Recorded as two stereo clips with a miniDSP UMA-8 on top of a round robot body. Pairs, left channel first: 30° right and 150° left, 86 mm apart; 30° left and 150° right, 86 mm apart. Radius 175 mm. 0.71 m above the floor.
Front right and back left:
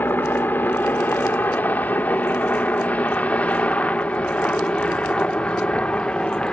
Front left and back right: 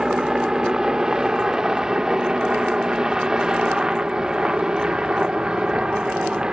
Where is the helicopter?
75° right; by 6.5 s 90° right.